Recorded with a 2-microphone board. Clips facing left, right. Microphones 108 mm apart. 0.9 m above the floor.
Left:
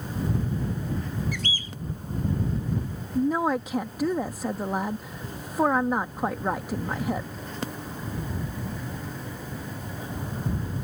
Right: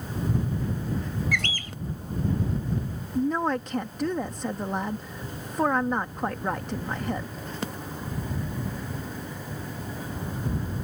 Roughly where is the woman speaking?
Centre.